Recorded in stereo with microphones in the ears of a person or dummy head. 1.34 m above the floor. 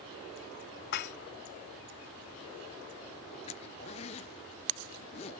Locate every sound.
0.9 s dishes clattering: 55° left (ahead or behind)
3.5 s a zipper: 35° left (ahead or behind)